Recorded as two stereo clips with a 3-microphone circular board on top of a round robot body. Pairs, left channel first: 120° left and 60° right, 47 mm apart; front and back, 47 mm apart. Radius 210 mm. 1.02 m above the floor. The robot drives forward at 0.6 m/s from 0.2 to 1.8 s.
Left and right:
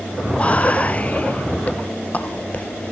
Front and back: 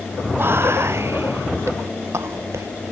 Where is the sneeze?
I don't hear a sneeze.